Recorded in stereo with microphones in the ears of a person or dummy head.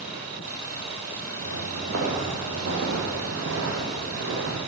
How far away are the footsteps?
About 2.5 m.